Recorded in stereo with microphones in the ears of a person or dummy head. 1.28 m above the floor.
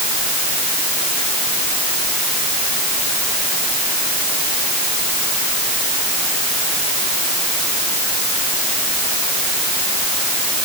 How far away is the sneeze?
I don't hear a sneeze.